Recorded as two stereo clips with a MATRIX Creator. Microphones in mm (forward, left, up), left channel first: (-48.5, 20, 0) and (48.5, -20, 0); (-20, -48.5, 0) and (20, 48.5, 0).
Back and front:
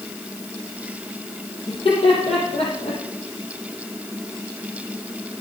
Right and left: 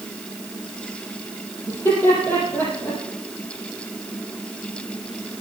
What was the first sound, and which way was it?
Laughter, 175° right.